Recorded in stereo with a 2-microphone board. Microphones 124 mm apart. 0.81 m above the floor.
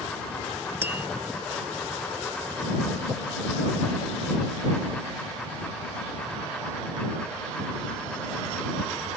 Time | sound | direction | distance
0.8 | tapping | 20° right (ahead or behind) | ?